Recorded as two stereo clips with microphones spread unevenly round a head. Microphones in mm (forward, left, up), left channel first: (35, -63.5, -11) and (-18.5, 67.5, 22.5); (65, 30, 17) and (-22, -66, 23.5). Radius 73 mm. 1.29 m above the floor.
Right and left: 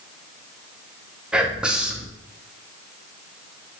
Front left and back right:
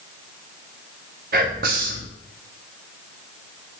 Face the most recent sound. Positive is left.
turn(degrees=-165)